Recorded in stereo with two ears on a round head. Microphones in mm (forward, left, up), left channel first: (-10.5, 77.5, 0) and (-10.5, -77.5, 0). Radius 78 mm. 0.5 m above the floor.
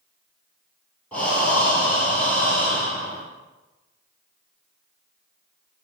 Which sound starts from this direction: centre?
Breathing, at 1.1 s.